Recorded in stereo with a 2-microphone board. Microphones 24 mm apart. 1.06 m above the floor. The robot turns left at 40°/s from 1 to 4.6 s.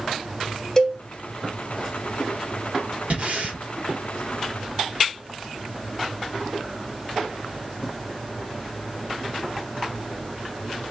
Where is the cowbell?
15° left (ahead or behind), 0.9 m.